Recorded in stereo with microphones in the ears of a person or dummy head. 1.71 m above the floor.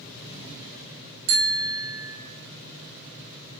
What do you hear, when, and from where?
1.3 s a bicycle bell: 60° right (ahead or behind), 2 m